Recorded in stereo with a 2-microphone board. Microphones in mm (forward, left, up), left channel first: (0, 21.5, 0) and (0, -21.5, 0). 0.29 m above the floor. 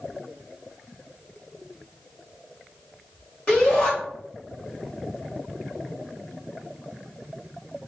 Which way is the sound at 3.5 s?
25° left (ahead or behind).